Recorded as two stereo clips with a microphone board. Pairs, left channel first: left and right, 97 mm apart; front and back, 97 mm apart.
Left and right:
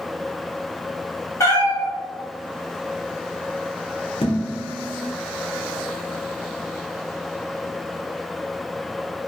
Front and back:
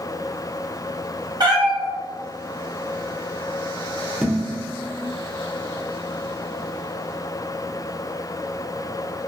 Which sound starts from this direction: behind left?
A cat meowing, at 1.4 s.